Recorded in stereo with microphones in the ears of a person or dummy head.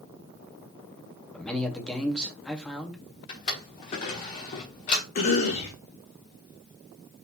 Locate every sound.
1.3 s a man speaking: centre (ahead or behind), 1.3 m
3.3 s a drawer: 35° left (ahead or behind), 1.2 m
5.2 s a cough: 45° left (ahead or behind), 2.5 m